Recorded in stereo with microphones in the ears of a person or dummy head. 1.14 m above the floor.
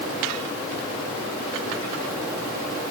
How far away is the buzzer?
I don't hear a buzzer.